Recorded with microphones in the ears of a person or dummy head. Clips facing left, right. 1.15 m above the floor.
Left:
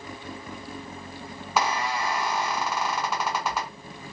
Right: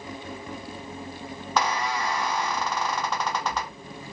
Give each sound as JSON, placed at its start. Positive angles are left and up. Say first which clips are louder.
{"t": 1.6, "sound": "a squeak", "louder": "even", "side_deg": 5, "distance_m": 0.7}